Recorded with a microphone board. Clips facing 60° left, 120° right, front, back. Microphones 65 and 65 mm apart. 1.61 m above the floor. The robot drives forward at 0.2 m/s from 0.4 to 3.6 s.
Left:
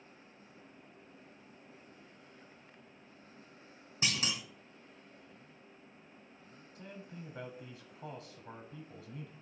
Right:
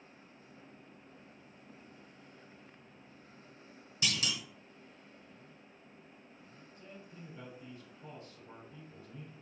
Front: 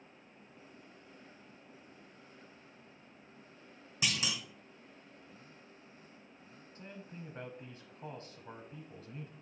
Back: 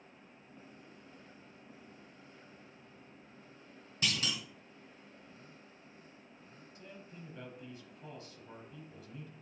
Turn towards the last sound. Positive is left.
turn(degrees=50)